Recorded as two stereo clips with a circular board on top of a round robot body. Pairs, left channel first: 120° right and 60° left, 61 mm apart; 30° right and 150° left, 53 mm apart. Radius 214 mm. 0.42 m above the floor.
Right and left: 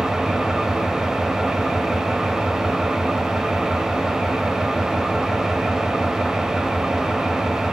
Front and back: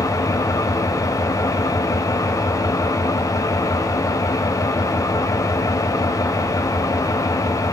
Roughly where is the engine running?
Ahead.